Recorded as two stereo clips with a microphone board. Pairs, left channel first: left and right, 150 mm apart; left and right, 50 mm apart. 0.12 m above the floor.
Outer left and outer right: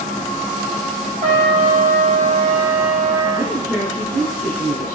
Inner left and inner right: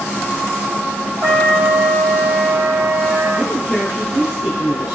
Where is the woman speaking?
20° right (ahead or behind), 1.4 m.